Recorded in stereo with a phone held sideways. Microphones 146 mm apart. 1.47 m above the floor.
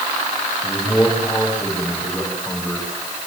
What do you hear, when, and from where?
0.6 s a man speaking: 5° left (ahead or behind), 9.5 m